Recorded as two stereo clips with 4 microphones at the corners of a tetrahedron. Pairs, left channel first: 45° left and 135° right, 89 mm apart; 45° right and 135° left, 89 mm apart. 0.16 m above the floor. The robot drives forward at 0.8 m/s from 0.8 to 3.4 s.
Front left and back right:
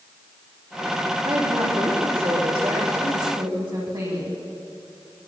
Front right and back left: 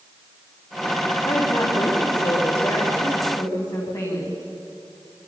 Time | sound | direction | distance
1.2 | a woman speaking | 100° right | 9 m